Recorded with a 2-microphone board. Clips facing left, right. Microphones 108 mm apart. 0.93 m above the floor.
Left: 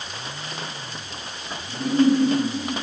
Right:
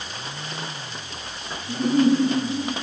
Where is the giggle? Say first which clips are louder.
Even; 20° right (ahead or behind), 8 m.